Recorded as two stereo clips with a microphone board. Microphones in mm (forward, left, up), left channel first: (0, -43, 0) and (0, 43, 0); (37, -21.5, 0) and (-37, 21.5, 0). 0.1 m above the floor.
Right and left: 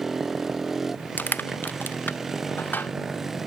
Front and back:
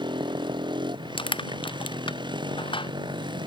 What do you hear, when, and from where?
0.0 s a motorcycle: 175° left
1.2 s crushing: 20° right